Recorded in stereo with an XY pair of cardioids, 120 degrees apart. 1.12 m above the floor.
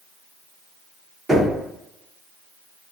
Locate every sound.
1.3 s knocking: 30° right, 0.9 m